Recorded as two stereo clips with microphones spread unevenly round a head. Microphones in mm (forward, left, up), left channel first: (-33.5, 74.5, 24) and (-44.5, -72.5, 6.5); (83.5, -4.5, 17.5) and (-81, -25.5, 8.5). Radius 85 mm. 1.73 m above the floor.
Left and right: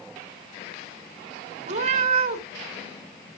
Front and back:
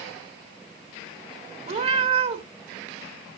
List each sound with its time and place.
1.7 s a cat meowing: 130° right, 1.4 m